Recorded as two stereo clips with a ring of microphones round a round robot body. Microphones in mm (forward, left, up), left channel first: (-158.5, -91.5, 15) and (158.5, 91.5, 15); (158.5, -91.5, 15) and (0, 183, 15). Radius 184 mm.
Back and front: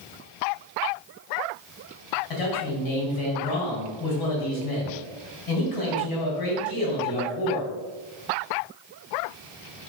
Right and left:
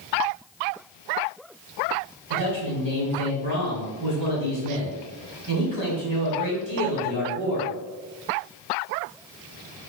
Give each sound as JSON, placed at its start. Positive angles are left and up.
{"t": 2.3, "sound": "a man speaking", "azimuth_deg": 180, "distance_m": 3.5}